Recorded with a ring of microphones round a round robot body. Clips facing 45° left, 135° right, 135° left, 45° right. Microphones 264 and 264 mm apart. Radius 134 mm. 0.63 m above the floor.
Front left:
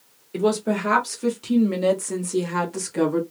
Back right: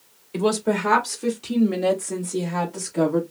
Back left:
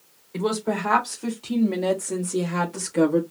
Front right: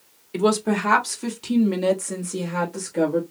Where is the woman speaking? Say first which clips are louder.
Even, front right 4 dB; 55° right, 1.7 m; by 3.2 s 80° left, 1.4 m.